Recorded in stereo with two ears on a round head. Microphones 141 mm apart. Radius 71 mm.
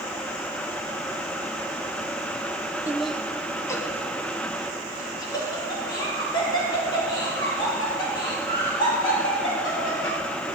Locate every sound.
2.9 s laughter: 15° right (ahead or behind), 0.6 m; by 10.2 s 30° left (ahead or behind), 11.5 m